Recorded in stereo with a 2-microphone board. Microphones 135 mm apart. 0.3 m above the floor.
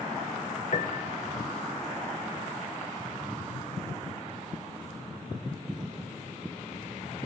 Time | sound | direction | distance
0.7 | a piano | 65° left (ahead or behind) | 1.7 m